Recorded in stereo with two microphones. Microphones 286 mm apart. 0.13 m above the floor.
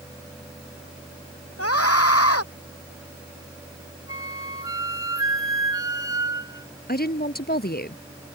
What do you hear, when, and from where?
1.6 s a scream: 55° left (ahead or behind)
4.1 s a flute: 10° right (ahead or behind)
6.9 s a woman speaking: 35° left (ahead or behind)